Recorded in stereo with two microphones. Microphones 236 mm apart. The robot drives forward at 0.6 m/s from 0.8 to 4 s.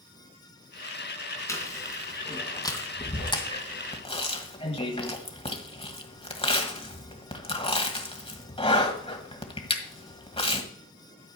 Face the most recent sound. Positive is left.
turn(degrees=25)  # may be behind; listen again after turning